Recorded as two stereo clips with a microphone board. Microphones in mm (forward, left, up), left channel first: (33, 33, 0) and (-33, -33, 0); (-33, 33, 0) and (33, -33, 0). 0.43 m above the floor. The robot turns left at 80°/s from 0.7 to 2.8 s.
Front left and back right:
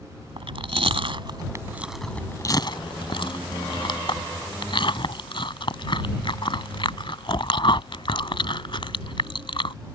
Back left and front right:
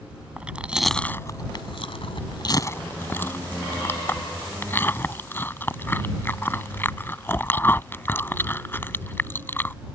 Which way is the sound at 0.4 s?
120° right.